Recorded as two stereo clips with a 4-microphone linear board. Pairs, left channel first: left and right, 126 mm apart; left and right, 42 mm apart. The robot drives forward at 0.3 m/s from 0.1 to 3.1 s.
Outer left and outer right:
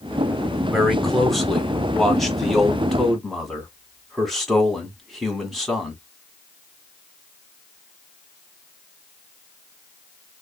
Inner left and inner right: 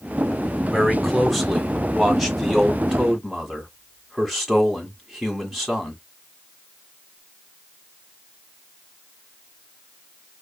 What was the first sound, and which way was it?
A man speaking, centre (ahead or behind).